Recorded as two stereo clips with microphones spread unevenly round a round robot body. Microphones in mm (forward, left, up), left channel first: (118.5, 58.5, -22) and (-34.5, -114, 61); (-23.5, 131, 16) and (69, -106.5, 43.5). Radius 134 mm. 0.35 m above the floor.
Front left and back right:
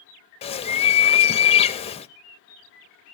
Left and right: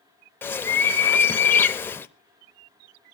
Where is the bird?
40° left, 0.8 m.